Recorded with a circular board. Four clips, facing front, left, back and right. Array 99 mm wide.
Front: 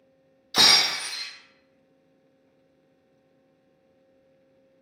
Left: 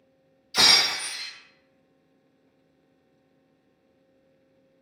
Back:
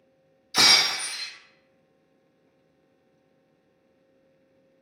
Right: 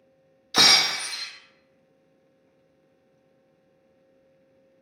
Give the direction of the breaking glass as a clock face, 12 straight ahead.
2 o'clock.